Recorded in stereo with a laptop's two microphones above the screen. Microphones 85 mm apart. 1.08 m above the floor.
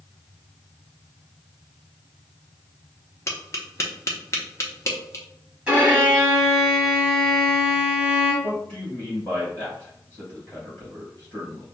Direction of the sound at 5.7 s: 15° right (ahead or behind).